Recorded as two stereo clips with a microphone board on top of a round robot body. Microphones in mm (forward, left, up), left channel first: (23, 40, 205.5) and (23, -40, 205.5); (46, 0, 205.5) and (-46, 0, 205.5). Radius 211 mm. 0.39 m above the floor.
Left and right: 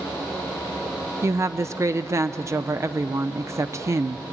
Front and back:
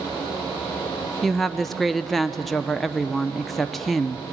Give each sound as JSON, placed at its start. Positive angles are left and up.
{"t": 1.2, "sound": "a woman speaking", "azimuth_deg": -85, "distance_m": 0.9}